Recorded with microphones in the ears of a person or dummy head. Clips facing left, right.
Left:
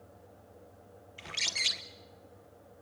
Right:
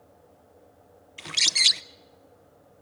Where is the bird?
65° right (ahead or behind), 0.7 m.